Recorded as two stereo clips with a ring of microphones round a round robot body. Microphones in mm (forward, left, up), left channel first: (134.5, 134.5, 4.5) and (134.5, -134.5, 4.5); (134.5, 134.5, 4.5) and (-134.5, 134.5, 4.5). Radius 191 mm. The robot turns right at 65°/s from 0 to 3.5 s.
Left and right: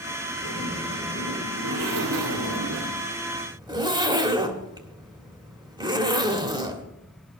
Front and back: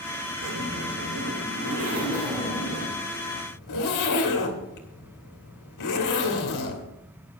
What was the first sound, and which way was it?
A zipper, 145° left.